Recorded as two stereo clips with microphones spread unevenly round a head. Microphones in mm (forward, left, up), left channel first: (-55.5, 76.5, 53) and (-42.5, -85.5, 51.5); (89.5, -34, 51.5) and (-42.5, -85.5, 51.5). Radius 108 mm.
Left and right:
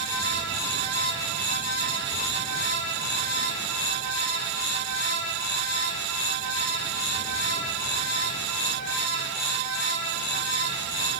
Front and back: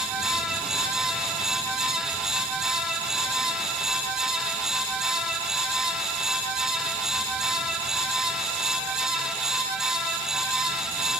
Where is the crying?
No crying in this recording.